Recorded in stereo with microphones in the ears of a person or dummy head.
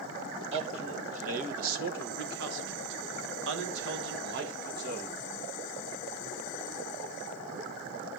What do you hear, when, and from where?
0.5 s a man speaking: 35° right (ahead or behind), 1.6 m; by 5.2 s 45° right (ahead or behind), 1.8 m